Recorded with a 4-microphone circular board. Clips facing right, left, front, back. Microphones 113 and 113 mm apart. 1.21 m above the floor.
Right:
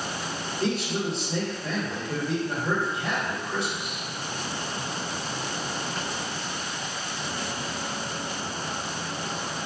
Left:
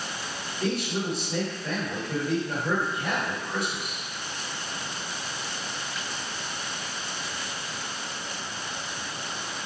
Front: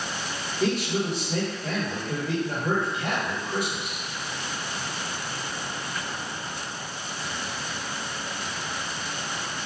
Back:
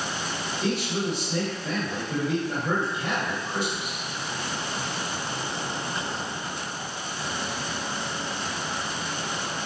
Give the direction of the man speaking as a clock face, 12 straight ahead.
1 o'clock.